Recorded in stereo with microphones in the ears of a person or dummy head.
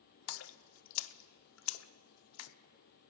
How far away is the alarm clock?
No alarm clock in this recording.